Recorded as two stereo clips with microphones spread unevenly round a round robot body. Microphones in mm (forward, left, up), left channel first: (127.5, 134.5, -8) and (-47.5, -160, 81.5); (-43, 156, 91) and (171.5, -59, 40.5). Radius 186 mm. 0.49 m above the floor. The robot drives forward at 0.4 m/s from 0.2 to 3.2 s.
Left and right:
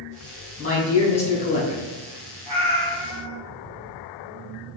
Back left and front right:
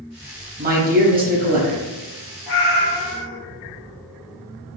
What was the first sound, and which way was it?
A man speaking, 5° left.